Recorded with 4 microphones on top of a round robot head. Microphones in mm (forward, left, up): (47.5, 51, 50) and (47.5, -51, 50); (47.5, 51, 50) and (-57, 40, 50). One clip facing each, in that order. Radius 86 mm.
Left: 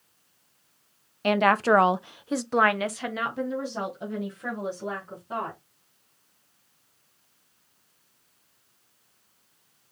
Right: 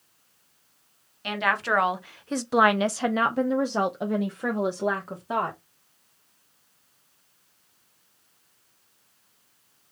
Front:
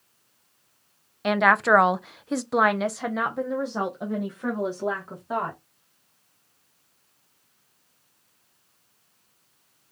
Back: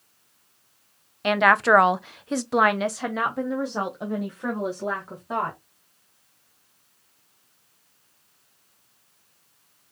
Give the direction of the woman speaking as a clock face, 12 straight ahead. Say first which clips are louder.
Left 6 dB, back 1 dB; 9 o'clock.